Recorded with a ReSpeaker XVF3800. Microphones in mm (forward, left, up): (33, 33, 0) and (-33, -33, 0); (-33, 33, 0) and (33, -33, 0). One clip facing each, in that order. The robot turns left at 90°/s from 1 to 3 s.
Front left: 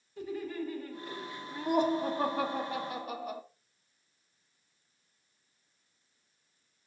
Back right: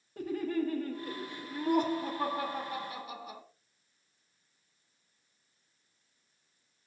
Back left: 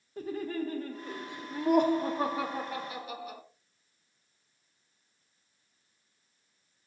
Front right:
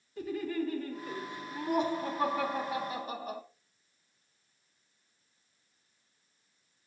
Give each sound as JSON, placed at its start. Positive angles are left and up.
{"t": 0.2, "sound": "laughter", "azimuth_deg": -175, "distance_m": 1.4}